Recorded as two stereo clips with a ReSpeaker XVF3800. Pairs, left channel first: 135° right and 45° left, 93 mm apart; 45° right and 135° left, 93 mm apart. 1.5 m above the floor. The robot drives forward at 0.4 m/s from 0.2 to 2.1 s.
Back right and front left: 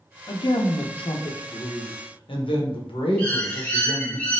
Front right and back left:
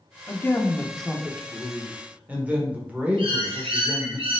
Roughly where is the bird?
Behind left.